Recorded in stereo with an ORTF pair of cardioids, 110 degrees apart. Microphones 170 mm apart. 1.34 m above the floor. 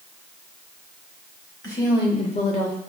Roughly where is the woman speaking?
Ahead.